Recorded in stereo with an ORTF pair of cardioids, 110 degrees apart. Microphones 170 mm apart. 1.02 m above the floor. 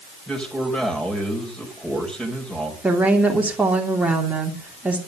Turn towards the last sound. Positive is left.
turn(degrees=-10)